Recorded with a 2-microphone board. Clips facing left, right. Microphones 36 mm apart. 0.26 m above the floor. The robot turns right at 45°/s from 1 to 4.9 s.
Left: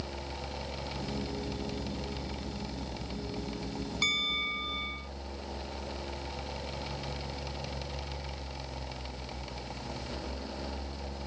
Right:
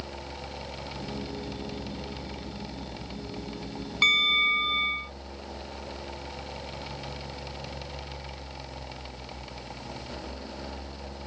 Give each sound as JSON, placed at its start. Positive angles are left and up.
{"t": 4.0, "sound": "a bell", "azimuth_deg": -125}